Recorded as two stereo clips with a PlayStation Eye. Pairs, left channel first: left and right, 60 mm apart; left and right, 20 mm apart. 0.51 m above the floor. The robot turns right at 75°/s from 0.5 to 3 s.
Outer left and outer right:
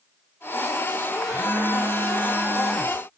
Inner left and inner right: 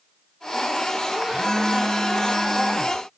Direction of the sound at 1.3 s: 110° right.